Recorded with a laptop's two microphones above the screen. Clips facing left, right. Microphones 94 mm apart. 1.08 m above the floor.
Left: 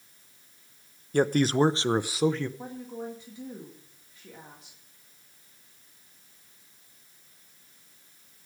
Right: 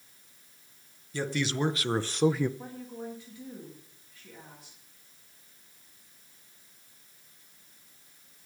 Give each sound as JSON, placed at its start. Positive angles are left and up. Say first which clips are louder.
{"t": 1.1, "sound": "a man speaking", "louder": "left 8 dB", "side_deg": 55, "distance_m": 0.8}
{"t": 2.6, "sound": "a woman speaking", "louder": "left 3 dB", "side_deg": 25, "distance_m": 2.0}